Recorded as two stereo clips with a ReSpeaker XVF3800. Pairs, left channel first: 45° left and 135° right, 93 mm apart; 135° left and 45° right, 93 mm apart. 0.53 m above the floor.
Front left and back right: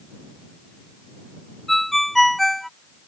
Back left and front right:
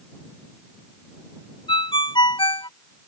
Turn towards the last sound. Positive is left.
turn(degrees=135)